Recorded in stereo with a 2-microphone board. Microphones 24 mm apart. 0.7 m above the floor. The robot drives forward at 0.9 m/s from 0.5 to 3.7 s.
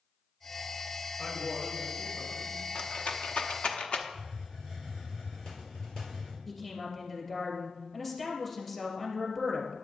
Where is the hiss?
30° left (ahead or behind), 3.5 m.